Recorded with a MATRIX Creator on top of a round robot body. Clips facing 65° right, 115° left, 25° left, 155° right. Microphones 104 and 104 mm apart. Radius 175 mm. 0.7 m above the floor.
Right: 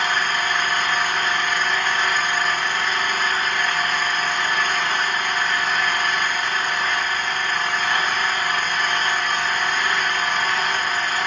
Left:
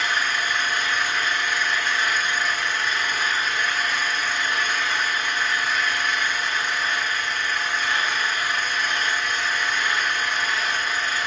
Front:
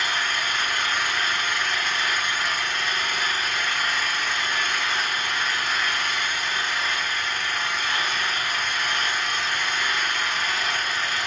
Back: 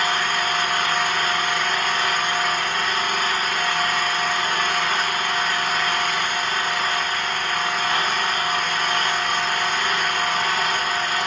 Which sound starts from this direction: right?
An engine running, at 0.0 s.